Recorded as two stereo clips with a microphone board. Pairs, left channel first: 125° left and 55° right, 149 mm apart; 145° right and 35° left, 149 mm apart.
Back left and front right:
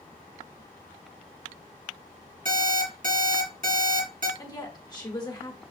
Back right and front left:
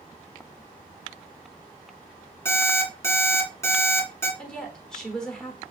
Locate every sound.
2.5 s an alarm clock: 75° right, 1.7 m
4.4 s a woman speaking: 135° left, 1.1 m